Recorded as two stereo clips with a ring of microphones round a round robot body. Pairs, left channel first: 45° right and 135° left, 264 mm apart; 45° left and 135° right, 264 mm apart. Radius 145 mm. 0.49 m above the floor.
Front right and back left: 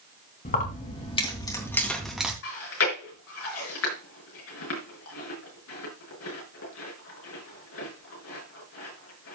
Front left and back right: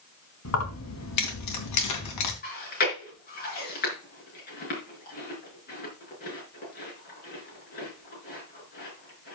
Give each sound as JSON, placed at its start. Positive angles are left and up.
{"t": 0.5, "sound": "keys jangling", "azimuth_deg": 10, "distance_m": 3.5}
{"t": 2.4, "sound": "chewing", "azimuth_deg": -10, "distance_m": 5.0}